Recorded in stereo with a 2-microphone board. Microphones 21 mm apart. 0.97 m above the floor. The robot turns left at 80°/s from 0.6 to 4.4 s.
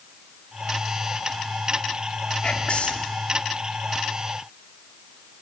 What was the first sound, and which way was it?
Whispering, 140° left.